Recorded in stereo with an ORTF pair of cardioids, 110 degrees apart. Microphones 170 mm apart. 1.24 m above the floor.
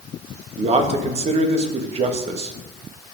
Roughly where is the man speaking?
Ahead right.